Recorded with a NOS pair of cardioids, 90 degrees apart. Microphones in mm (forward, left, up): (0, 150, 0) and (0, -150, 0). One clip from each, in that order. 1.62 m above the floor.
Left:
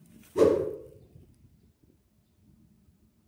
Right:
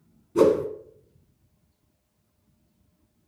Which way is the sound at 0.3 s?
25° right.